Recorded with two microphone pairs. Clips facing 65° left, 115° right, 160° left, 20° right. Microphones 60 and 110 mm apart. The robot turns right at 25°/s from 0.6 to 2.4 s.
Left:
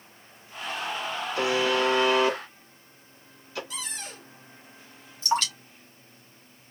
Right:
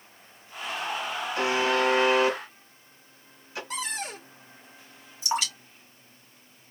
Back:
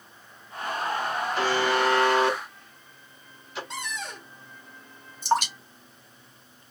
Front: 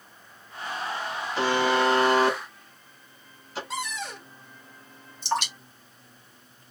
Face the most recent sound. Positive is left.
turn(degrees=175)